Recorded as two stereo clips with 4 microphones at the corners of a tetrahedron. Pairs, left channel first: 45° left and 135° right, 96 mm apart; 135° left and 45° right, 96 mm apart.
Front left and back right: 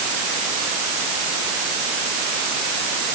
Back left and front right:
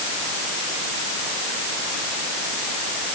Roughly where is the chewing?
No chewing in this recording.